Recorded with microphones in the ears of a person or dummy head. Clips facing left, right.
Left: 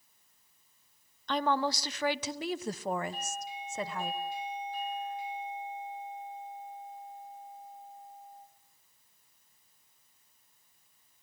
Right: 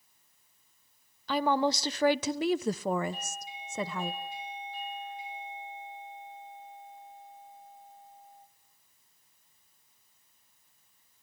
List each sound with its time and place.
1.3 s a woman speaking: 5° right (ahead or behind), 0.8 m; by 4.1 s 75° right (ahead or behind), 1.4 m
3.1 s a doorbell: 40° left (ahead or behind), 6.5 m